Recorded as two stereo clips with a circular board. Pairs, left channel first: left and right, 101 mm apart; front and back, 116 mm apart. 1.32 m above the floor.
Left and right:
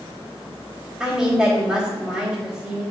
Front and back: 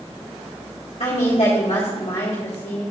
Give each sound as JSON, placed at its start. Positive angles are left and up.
{"t": 1.0, "sound": "a woman speaking", "azimuth_deg": -10, "distance_m": 2.0}